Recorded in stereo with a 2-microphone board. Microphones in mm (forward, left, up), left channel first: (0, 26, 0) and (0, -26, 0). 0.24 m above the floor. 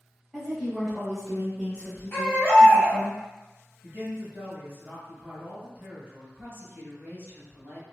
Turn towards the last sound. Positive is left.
turn(degrees=-40)  # may be behind; listen again after turning